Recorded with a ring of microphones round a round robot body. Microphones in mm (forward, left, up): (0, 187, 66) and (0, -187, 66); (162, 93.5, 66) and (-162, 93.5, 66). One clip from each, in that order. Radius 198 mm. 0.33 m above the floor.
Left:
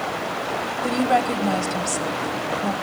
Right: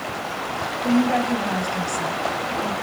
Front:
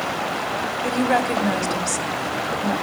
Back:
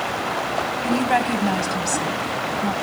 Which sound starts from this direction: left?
A woman speaking, at 0.8 s.